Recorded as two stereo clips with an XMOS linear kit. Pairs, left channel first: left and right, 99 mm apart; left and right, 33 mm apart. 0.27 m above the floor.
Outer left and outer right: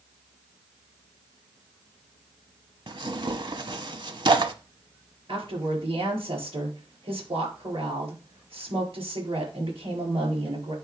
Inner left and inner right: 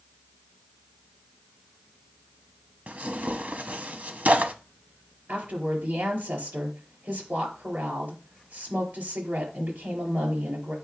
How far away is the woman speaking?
About 5 m.